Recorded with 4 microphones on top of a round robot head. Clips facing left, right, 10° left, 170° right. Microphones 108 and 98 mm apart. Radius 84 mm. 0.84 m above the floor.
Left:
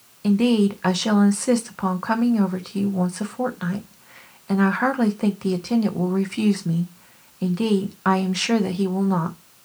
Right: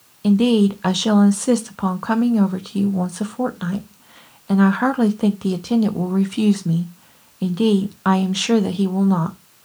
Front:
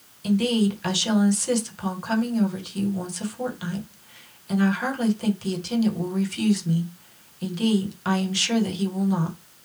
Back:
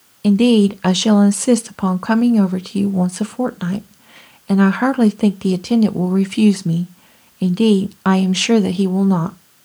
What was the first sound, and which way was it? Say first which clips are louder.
A woman speaking: right 3 dB, back 10 dB; 170° right.